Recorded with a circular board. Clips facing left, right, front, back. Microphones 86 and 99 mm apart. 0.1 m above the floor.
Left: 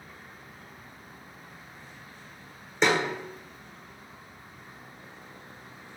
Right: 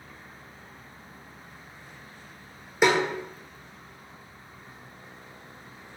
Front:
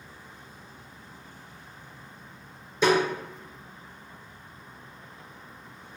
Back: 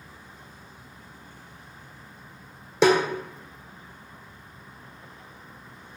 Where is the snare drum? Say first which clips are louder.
Right 3 dB, back 3 dB; 170° right, 1.0 m.